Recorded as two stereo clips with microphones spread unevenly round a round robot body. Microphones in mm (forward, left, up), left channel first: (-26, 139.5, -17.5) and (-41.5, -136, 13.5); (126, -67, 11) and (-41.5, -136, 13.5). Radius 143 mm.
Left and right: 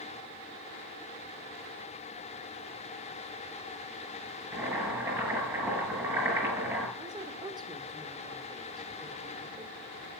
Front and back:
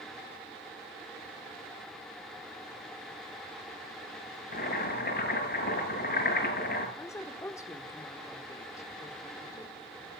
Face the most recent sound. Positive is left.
turn(degrees=-20)